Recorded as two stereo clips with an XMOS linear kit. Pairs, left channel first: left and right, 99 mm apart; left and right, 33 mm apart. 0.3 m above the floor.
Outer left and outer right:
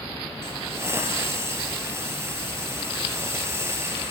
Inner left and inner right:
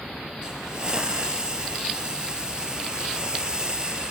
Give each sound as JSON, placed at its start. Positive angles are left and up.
{"t": 0.4, "sound": "a hiss", "side_deg": -25, "distance_m": 3.5}